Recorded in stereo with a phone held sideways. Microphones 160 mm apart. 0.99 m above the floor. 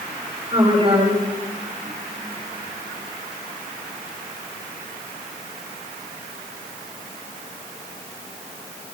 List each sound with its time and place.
0.5 s a woman speaking: 35° right (ahead or behind), 7 m